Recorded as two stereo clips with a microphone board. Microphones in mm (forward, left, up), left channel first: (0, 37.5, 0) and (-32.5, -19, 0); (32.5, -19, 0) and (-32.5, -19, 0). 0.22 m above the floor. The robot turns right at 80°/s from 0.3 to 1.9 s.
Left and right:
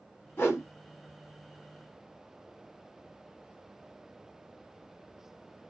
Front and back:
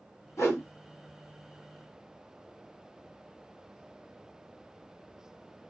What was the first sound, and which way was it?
A whoosh, 20° left.